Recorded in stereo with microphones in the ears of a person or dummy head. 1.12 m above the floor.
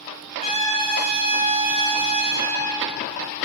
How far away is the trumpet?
About 1.5 m.